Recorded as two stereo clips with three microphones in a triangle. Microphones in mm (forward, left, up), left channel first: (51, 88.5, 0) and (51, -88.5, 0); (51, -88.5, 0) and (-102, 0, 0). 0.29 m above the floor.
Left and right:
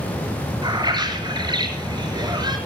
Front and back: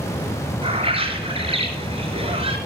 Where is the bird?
155° right, 4.5 m.